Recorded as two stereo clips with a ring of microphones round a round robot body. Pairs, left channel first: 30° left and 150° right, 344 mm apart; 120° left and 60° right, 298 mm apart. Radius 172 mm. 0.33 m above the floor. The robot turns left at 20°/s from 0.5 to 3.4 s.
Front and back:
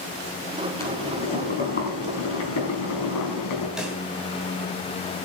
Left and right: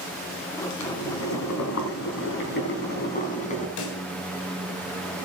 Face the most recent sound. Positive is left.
turn(degrees=125)